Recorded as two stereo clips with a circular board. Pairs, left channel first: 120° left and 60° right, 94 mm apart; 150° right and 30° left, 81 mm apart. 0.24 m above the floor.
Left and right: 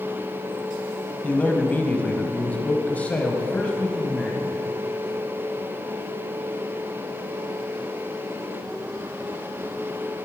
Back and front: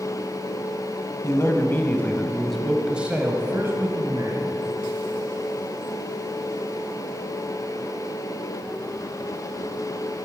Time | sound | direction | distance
1.2 | a man speaking | 175° right | 1.2 m